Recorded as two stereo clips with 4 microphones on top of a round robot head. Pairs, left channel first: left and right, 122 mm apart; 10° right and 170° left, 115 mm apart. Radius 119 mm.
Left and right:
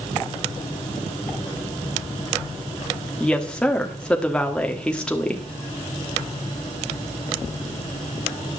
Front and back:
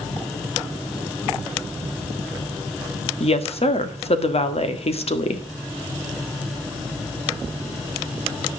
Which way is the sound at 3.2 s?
10° left.